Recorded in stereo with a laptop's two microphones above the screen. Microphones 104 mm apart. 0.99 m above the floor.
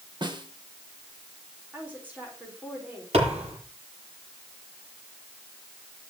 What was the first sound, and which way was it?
A snare drum, 50° right (ahead or behind).